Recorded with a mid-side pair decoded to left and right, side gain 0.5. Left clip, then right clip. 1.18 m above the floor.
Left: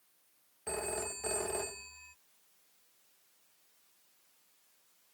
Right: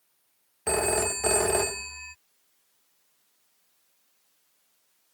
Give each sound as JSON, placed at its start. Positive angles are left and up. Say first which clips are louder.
{"t": 0.7, "sound": "a phone ringing", "louder": "right 12 dB", "azimuth_deg": -65}